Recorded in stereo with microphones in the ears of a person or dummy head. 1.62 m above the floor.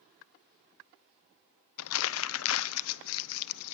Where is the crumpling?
80° left, 0.7 m.